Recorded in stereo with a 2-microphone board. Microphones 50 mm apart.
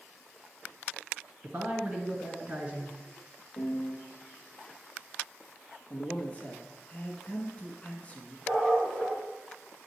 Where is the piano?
60° left (ahead or behind), 1.3 m.